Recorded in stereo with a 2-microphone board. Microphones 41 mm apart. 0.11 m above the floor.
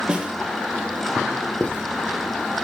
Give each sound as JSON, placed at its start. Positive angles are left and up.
{"t": 0.1, "sound": "a snare drum", "side_deg": -20, "distance_m": 3.5}
{"t": 1.6, "sound": "writing", "side_deg": 30, "distance_m": 4.0}